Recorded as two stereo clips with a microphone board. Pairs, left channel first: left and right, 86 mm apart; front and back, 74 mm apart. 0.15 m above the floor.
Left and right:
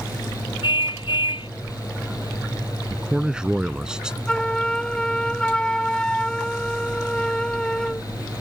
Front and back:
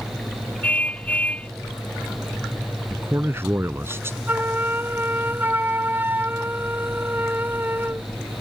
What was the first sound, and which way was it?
A car horn, 70° left.